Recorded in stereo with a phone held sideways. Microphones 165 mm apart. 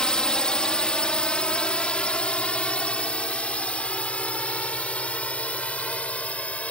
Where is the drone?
5° left (ahead or behind); by 6.7 s 10° left (ahead or behind).